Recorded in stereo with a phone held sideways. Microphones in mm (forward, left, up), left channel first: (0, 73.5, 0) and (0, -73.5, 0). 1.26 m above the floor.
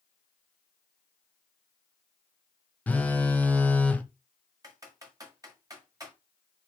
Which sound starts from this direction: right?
Typing on a keyboard, at 4.6 s.